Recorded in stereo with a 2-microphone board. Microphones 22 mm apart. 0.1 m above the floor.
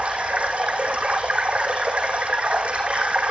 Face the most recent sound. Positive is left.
turn(degrees=-75)  # may be behind; listen again after turning